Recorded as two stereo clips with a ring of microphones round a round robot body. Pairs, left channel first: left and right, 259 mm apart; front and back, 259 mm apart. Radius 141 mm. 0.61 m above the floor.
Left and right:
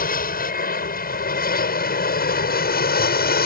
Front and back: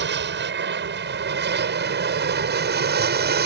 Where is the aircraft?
140° left; by 3.5 s 135° left.